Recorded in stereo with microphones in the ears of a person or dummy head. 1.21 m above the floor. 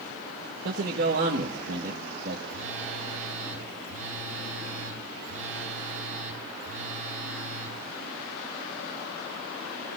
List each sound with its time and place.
0.7 s a man speaking: 60° right (ahead or behind), 1.4 m
2.5 s a phone buzzing: 65° right (ahead or behind), 2.5 m